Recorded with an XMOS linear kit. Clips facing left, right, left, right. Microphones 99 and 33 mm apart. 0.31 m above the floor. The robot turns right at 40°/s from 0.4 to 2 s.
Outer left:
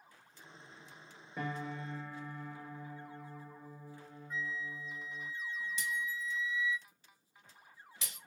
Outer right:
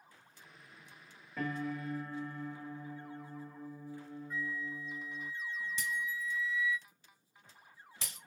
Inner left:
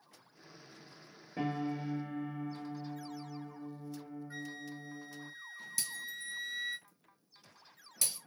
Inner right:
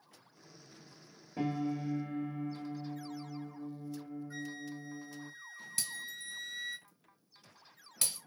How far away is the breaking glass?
About 1.6 m.